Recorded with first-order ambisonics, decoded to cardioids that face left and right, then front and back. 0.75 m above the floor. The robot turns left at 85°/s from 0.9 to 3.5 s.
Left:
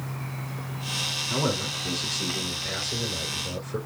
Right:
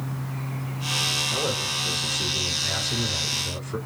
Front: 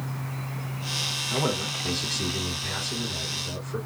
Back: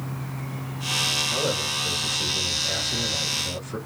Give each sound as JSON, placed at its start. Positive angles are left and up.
{"t": 1.3, "sound": "a man speaking", "azimuth_deg": 65, "distance_m": 3.0}